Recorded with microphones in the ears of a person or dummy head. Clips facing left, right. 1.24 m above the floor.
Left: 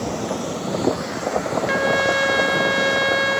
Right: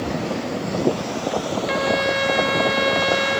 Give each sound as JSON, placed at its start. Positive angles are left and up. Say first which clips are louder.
{"t": 1.7, "sound": "a trumpet", "louder": "even", "side_deg": 10, "distance_m": 0.9}